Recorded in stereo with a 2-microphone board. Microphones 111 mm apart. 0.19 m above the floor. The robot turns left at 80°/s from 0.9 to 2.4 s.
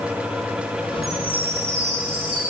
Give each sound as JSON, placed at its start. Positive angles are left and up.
{"t": 1.0, "sound": "a chime", "azimuth_deg": -30, "distance_m": 9.5}